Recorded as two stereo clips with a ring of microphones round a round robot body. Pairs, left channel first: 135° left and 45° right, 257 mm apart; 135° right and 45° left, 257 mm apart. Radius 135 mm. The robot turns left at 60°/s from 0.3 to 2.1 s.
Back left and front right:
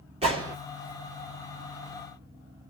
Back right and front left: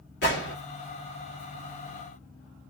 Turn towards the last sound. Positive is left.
turn(degrees=145)